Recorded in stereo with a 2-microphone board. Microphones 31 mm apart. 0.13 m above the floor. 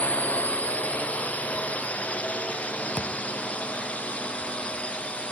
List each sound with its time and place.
0.0 s a drone: 60° left (ahead or behind); by 5.3 s 40° left (ahead or behind)
3.0 s a thud: 35° left (ahead or behind)